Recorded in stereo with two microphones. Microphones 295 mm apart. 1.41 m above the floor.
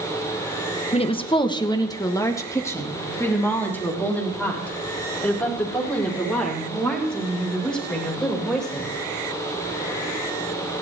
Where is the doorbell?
I don't hear a doorbell.